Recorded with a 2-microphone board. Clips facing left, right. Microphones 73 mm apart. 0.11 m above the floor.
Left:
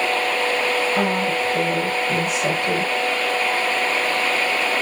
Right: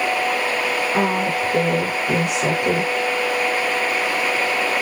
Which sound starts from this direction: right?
A woman speaking, at 0.9 s.